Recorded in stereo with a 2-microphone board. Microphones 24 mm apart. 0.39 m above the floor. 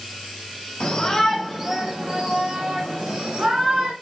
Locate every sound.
0.8 s a shout: 45° left (ahead or behind), 1.2 m; by 3.9 s 70° right (ahead or behind), 3 m